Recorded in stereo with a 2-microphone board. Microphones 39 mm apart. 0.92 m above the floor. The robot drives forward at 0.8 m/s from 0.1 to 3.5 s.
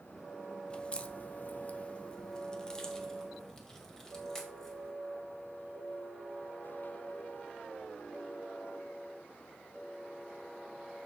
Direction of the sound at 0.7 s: 25° left (ahead or behind).